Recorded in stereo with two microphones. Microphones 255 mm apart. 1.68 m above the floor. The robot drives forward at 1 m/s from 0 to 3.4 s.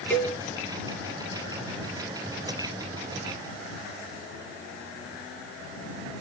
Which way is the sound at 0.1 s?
5° left (ahead or behind).